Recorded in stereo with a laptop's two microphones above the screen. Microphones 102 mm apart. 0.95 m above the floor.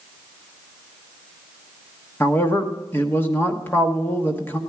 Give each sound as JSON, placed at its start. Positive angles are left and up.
{"t": 2.2, "sound": "a man speaking", "side_deg": 20, "distance_m": 1.1}